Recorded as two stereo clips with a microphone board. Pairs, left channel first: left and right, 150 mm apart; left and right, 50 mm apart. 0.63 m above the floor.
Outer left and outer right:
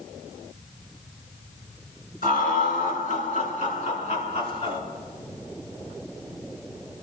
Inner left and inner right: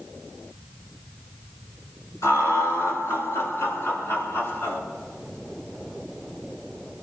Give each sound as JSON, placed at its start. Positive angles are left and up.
{"t": 2.2, "sound": "laughter", "side_deg": 70, "distance_m": 8.0}